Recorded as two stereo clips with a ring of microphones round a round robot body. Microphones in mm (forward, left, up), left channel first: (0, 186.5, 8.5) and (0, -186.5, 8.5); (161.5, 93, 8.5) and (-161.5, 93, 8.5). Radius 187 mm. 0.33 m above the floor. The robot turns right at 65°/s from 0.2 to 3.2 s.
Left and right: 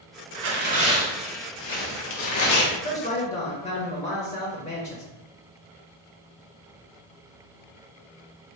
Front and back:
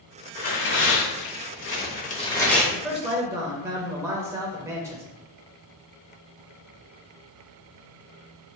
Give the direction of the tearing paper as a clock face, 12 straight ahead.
2 o'clock.